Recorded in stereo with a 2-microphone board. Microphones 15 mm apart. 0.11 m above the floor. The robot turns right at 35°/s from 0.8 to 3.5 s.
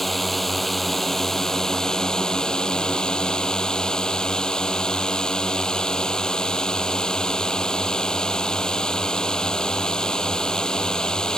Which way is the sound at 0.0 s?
10° left.